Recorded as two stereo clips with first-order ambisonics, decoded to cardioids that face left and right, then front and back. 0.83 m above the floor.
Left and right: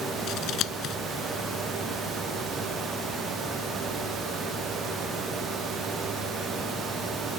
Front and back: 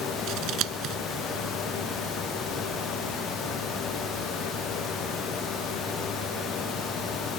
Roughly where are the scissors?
Behind left.